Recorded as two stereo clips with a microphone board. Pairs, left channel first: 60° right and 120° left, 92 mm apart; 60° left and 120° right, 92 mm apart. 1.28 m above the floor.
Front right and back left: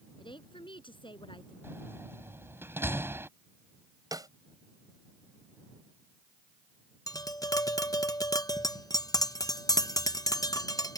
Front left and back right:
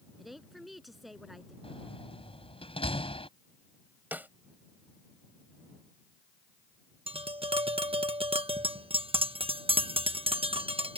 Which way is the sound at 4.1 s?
170° left.